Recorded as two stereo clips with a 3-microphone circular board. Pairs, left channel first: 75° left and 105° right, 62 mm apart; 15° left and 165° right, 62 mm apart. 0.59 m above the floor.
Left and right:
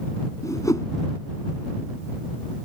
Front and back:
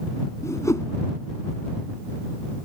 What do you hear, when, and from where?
0.4 s a whoosh: 50° left